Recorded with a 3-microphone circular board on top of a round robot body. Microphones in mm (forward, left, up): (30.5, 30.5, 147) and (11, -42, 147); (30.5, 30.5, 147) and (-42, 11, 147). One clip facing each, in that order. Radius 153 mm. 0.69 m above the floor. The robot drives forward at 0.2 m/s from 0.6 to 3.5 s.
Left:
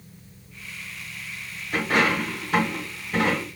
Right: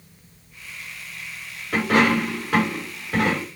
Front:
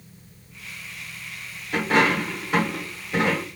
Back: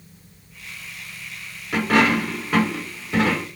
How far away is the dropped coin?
About 0.6 m.